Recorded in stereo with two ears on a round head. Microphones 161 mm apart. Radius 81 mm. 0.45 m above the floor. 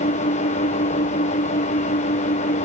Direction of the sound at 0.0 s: 40° left (ahead or behind).